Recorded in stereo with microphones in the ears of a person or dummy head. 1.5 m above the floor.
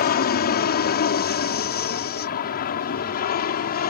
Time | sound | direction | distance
0.0 | an aircraft | 40° left (ahead or behind) | ?